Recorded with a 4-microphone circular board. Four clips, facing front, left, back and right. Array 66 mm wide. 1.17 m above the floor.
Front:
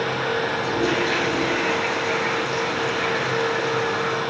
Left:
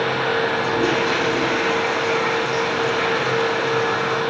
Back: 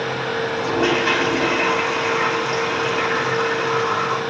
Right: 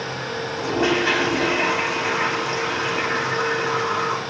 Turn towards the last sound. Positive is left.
turn(degrees=-140)